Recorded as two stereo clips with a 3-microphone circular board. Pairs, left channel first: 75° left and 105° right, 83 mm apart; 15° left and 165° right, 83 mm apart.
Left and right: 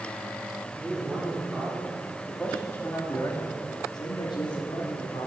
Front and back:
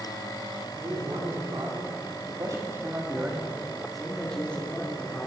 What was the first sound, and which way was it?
A man speaking, 175° right.